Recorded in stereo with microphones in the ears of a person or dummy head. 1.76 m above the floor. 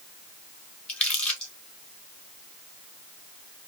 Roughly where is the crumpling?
Centre.